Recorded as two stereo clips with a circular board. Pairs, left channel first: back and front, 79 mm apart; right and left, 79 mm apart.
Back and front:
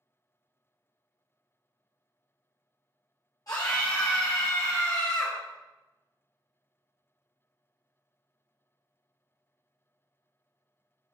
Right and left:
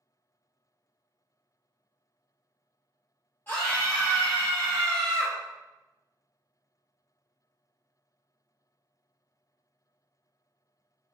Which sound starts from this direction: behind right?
A scream, at 3.5 s.